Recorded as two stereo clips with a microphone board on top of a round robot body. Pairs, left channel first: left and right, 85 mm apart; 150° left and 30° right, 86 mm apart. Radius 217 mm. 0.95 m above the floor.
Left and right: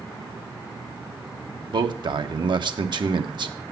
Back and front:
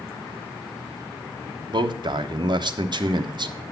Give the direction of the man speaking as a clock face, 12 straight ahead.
2 o'clock.